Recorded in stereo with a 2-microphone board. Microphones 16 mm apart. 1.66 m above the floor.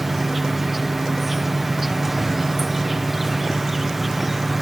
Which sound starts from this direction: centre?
An insect, at 0.0 s.